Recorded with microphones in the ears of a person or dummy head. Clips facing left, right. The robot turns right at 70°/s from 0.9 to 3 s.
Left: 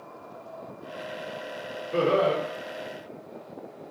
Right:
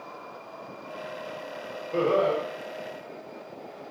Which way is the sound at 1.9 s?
15° left.